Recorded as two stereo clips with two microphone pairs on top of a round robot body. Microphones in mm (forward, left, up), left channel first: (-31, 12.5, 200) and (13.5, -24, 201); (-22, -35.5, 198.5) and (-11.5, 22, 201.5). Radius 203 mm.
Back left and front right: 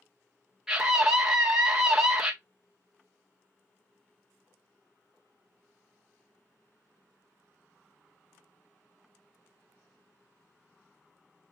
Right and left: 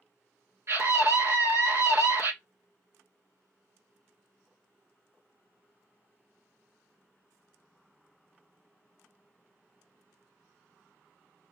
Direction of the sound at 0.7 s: 45° left.